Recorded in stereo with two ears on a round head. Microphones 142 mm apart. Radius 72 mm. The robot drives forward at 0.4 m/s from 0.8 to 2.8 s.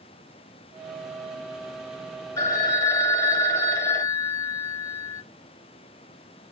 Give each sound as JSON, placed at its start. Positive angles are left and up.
{"t": 2.4, "sound": "a phone ringing", "side_deg": 20, "distance_m": 0.7}